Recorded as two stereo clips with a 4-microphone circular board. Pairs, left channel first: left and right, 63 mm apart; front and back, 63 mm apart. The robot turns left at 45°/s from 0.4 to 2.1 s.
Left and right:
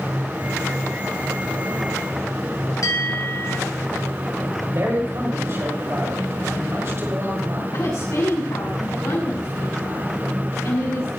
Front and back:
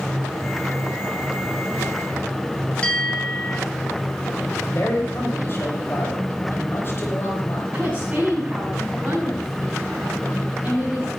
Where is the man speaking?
45° right, 6 m.